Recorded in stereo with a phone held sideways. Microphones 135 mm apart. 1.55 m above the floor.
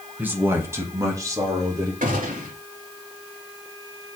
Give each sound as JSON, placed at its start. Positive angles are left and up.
{"t": 0.2, "sound": "a man speaking", "side_deg": -15, "distance_m": 2.0}
{"t": 2.0, "sound": "a gunshot", "side_deg": -85, "distance_m": 3.0}